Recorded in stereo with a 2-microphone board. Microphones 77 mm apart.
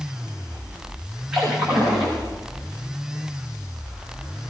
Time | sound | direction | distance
1.3 | a splash | 10° right (ahead or behind) | 9 m